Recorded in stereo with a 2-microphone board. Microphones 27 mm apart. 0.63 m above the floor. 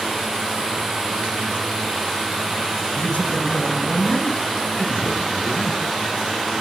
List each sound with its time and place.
3.0 s a man speaking: 65° left (ahead or behind), 6.5 m; by 5.8 s 60° left (ahead or behind), 7.5 m